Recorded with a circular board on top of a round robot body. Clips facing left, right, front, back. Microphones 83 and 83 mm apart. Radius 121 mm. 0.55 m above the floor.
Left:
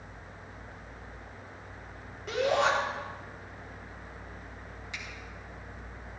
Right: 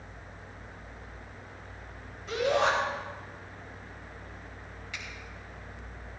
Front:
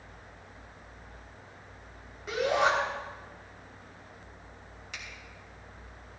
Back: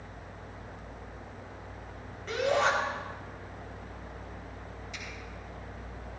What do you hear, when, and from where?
2.3 s a shout: 80° left, 4 m
4.9 s a finger snap: 25° left, 4 m